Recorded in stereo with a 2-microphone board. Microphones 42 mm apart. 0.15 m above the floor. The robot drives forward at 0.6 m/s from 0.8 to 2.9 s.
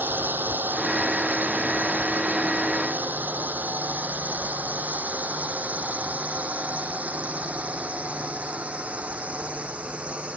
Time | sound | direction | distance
0.0 | a drone | 50° right (ahead or behind) | ?